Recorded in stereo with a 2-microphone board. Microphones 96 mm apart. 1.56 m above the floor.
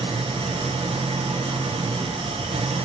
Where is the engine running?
85° right, 1.1 m.